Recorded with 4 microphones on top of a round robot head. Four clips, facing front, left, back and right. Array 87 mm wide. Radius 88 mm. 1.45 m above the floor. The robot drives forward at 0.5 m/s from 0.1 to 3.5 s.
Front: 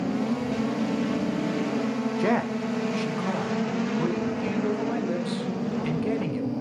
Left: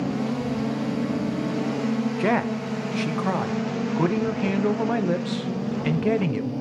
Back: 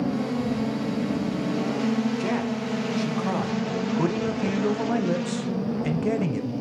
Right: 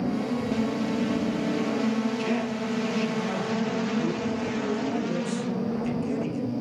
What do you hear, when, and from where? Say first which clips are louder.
2.2 s a man speaking: left 4 dB, front 2 dB; 60° left, 0.8 m; by 6.5 s 110° left, 0.8 m